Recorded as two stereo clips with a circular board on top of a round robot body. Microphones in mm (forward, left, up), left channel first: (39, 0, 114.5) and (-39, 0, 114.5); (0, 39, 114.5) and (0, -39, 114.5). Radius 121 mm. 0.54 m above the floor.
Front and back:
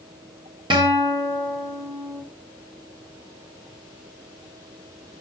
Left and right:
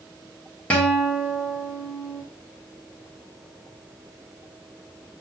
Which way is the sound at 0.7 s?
165° left.